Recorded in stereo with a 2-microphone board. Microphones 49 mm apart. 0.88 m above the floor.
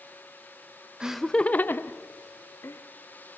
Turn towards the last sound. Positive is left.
turn(degrees=70)  # may be behind; listen again after turning